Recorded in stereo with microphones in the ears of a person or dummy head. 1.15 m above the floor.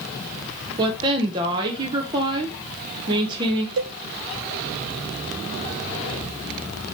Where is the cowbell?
60° right (ahead or behind), 0.5 m.